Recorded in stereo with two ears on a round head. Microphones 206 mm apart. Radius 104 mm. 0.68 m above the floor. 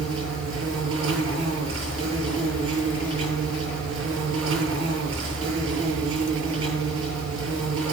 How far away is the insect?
About 8.5 m.